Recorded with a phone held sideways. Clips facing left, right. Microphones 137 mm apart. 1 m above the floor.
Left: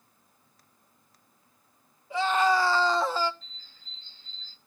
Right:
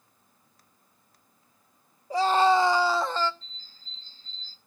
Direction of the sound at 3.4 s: 35° right (ahead or behind).